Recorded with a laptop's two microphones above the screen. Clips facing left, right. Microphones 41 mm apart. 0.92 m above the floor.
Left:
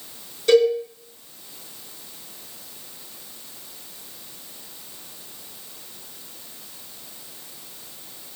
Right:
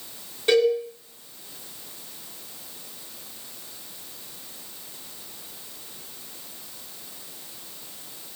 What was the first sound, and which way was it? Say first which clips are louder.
A cowbell: left 3 dB; 25° right (ahead or behind).